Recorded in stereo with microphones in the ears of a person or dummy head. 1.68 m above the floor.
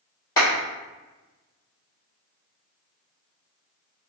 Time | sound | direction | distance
0.4 | a clap | 20° left (ahead or behind) | 1.7 m